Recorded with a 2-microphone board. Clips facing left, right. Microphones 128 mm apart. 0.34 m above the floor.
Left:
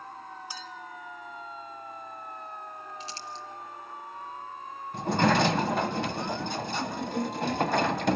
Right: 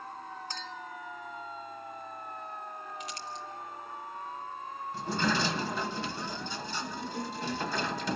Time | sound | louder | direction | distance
0.5 | a clink | even | 10° left (ahead or behind) | 1.0 m
3.0 | crumpling | even | 30° left (ahead or behind) | 2 m
4.9 | a sliding door | left 7 dB | 60° left (ahead or behind) | 1.0 m